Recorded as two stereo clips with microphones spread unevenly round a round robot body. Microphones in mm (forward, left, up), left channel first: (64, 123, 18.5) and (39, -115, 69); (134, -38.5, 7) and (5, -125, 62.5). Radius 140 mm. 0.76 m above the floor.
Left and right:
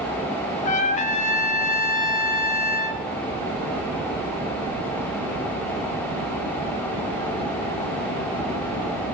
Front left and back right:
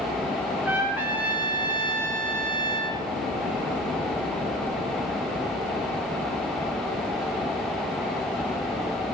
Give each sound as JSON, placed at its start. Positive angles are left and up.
{"t": 0.7, "sound": "a trumpet", "azimuth_deg": 120, "distance_m": 1.5}